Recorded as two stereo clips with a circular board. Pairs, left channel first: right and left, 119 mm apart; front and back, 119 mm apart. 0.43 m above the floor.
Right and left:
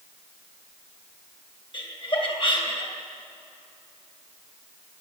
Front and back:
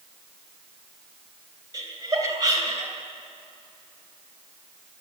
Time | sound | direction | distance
1.7 | laughter | 125° right | 3 m